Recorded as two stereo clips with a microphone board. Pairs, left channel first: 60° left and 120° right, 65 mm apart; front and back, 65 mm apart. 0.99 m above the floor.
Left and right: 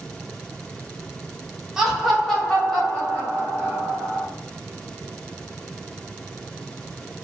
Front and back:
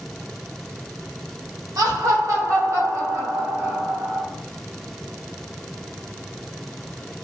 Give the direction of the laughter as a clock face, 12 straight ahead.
7 o'clock.